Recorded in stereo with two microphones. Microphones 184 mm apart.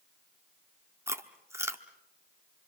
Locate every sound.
1.1 s chewing: 15° right (ahead or behind), 1.2 m